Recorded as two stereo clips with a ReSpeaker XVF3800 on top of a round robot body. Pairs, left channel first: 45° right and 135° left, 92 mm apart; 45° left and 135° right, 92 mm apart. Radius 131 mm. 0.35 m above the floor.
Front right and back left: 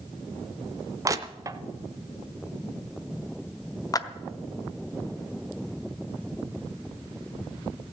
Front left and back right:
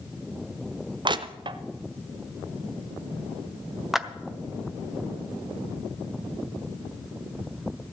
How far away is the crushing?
About 0.7 m.